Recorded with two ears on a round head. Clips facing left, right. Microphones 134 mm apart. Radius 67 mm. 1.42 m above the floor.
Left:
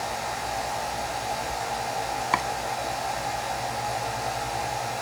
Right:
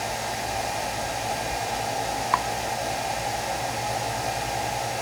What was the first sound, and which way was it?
Chopping, 25° left (ahead or behind).